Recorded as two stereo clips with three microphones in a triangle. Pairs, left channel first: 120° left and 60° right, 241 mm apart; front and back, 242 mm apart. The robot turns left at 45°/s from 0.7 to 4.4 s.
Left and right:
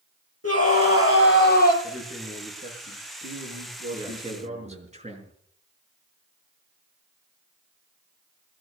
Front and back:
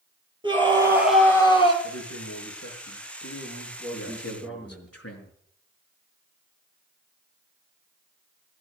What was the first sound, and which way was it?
A scream, 110° left.